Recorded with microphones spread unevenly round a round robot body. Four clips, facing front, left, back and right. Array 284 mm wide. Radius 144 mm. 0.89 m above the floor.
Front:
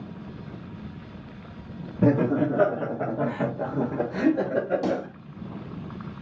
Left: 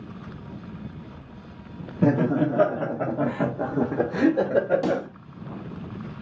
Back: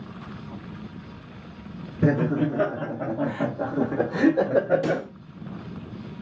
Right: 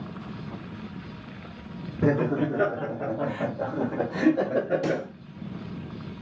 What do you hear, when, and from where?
2.0 s laughter: 45° left, 1.5 m; by 5.0 s 150° left, 1.2 m
4.8 s a pop: 50° left, 1.0 m